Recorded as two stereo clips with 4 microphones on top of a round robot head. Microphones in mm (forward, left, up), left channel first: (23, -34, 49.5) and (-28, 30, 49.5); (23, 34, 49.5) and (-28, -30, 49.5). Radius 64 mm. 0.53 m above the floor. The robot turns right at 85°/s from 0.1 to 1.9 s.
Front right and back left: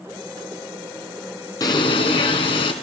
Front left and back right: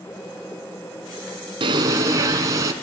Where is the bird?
100° right, 3 m; by 2.7 s 75° right, 3 m.